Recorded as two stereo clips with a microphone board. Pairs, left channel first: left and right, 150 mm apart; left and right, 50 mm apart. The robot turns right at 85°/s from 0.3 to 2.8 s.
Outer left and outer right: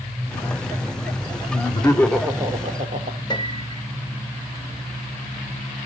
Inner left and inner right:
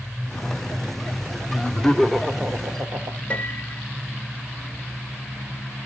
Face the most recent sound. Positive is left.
turn(degrees=25)  # may be behind; listen again after turning